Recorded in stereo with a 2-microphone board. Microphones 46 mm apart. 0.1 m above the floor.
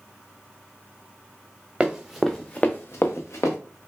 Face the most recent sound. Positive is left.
turn(degrees=80)